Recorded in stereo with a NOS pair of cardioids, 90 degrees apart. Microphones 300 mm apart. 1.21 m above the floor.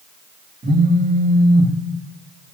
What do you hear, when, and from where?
0.6 s a phone buzzing: 25° right, 3 m